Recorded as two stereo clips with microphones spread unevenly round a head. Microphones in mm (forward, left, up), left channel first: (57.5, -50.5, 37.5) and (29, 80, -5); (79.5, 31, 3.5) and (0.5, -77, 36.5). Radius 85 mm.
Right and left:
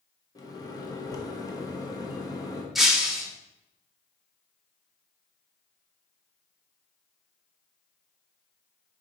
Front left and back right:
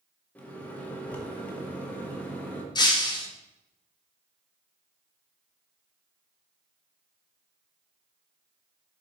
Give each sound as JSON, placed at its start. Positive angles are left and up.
{"t": 0.3, "sound": "a microwave", "azimuth_deg": -35, "distance_m": 1.0}
{"t": 2.8, "sound": "breaking glass", "azimuth_deg": -10, "distance_m": 1.1}